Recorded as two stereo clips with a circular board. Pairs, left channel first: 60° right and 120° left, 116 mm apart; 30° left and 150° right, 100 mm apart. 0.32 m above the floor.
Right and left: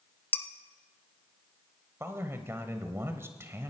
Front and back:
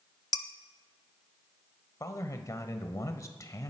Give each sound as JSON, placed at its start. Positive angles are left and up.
{"t": 0.3, "sound": "dishes clattering", "azimuth_deg": 5, "distance_m": 0.8}
{"t": 2.0, "sound": "a man speaking", "azimuth_deg": 65, "distance_m": 1.1}